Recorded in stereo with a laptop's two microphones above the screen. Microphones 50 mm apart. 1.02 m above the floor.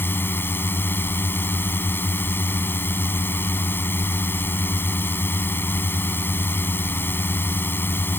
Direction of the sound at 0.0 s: 45° left (ahead or behind).